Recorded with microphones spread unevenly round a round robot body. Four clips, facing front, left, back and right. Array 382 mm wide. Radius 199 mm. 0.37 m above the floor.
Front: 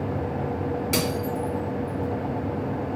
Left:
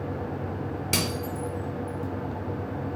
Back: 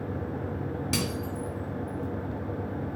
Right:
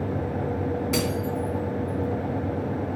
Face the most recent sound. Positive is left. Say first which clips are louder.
# right 4 dB, front 6 dB
turn(degrees=140)